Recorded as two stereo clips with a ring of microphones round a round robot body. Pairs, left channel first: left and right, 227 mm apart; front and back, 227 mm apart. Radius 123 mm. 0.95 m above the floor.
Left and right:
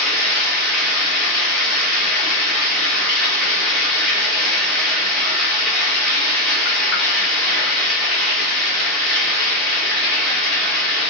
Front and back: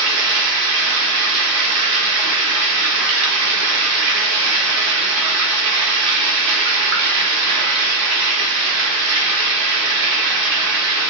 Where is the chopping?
No chopping in this recording.